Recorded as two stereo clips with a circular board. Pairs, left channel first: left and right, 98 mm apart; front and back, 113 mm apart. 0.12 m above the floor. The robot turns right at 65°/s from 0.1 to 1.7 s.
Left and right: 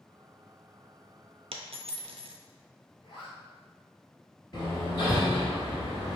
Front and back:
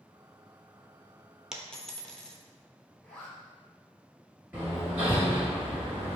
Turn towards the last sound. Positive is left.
turn(degrees=115)